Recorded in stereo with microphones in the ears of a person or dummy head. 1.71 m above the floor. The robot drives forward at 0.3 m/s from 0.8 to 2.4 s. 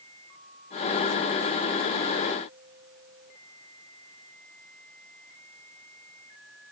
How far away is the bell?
I don't hear a bell.